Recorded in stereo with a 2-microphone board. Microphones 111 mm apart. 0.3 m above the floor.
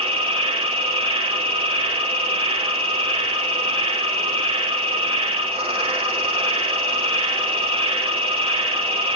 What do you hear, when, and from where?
0.0 s an insect: 60° right (ahead or behind), 0.8 m